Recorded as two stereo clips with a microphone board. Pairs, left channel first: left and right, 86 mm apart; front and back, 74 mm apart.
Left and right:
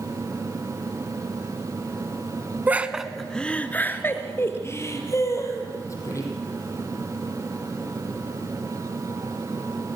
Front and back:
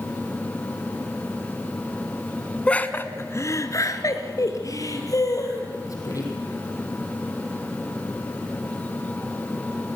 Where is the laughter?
55° right, 1.1 m; by 6.3 s 40° left, 4.5 m.